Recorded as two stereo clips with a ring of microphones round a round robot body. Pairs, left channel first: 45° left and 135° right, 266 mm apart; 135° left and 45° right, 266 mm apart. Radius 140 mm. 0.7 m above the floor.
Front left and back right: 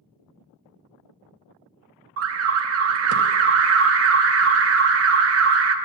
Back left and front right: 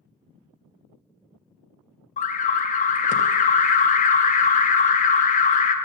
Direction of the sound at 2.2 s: 165° right.